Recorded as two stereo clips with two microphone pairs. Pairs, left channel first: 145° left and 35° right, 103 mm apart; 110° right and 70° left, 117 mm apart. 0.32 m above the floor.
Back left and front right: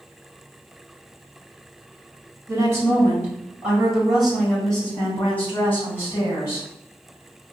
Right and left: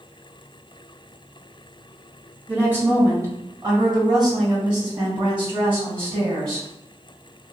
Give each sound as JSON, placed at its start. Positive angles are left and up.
{"t": 2.5, "sound": "a woman speaking", "azimuth_deg": 0, "distance_m": 1.8}